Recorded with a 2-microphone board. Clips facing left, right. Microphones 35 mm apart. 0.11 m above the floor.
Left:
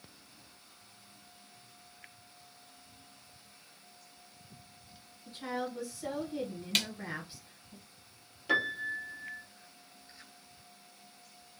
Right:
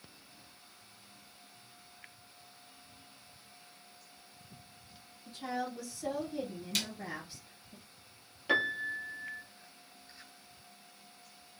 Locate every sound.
5.2 s a woman speaking: 35° left (ahead or behind), 1.6 m
6.8 s a snare drum: 60° left (ahead or behind), 0.5 m
8.5 s a piano: 10° right (ahead or behind), 0.8 m